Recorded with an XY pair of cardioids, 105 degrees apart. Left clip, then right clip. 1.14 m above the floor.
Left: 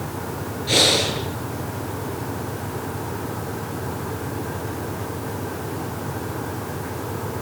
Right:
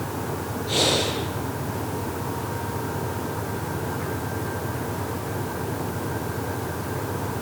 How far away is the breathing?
About 9 m.